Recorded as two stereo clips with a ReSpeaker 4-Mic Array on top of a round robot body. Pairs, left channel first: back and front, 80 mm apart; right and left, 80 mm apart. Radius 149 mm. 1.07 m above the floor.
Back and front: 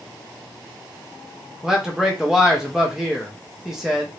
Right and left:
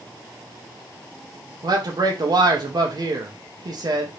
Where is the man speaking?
85° left, 0.9 m.